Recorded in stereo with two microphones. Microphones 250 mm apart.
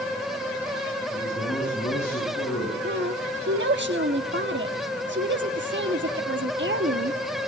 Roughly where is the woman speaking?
Right.